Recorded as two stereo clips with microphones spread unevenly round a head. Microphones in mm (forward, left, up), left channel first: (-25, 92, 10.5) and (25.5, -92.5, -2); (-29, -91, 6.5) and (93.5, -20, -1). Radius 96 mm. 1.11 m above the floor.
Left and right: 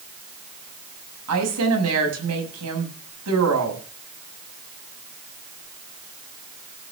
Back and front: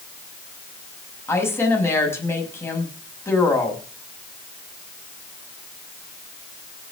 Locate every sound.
1.3 s a woman speaking: 80° right, 6 m